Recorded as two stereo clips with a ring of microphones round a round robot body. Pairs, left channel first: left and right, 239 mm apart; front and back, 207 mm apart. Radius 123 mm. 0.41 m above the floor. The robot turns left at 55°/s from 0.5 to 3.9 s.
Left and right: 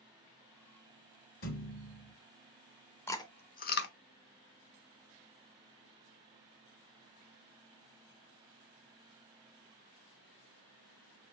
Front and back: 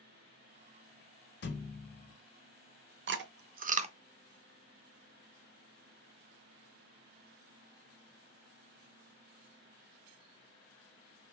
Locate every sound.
1.4 s a thud: 40° left, 0.9 m; by 2.1 s straight ahead, 0.9 m
3.1 s chewing: 170° left, 0.5 m; by 3.9 s 125° left, 0.5 m